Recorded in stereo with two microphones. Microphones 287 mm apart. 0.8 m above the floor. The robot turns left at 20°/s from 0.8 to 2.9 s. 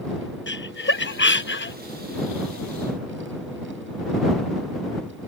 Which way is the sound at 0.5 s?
40° left (ahead or behind).